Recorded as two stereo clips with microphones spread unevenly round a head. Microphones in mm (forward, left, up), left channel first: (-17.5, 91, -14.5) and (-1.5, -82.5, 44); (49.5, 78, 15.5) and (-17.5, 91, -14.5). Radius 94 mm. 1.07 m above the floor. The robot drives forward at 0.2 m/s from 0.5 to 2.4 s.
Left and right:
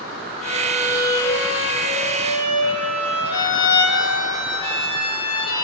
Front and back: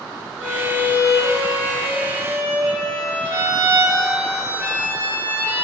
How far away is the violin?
About 4 m.